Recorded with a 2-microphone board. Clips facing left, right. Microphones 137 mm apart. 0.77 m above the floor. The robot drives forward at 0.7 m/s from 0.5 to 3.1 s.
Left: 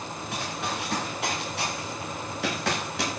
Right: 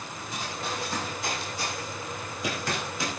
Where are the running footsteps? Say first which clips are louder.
Left 2 dB; 70° left (ahead or behind), 8.5 m; by 3.2 s 80° left, 9.5 m.